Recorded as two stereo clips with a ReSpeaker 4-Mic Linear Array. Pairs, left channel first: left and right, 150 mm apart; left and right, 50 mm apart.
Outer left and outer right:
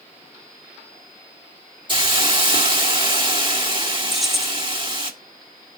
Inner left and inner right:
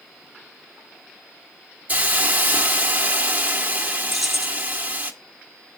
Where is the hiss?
30° right (ahead or behind), 1.5 m.